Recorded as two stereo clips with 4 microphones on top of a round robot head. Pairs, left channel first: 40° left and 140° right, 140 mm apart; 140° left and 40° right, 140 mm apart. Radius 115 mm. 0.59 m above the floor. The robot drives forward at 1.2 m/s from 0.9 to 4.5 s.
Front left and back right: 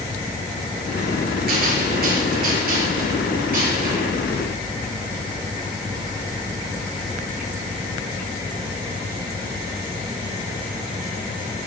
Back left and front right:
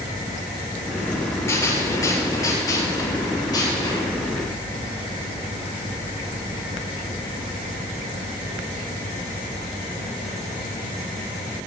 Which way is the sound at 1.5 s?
150° right.